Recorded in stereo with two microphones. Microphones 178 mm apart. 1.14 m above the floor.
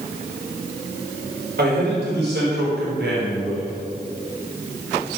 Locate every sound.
1.6 s a man speaking: 65° right (ahead or behind), 4.5 m; by 3.7 s 75° right (ahead or behind), 5.5 m